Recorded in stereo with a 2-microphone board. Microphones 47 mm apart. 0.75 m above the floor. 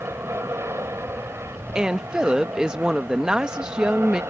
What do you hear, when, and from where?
0.0 s an aircraft: 70° right (ahead or behind)
1.8 s a woman speaking: 15° right (ahead or behind)